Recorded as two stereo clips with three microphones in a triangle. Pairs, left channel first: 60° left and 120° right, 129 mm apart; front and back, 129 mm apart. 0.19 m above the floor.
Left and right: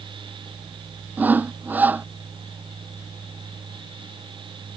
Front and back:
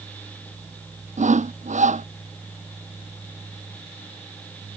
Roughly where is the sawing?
Behind.